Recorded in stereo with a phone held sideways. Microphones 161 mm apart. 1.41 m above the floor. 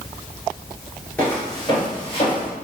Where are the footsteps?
10° left (ahead or behind), 1.5 m; by 2.5 s 45° left (ahead or behind), 2.0 m.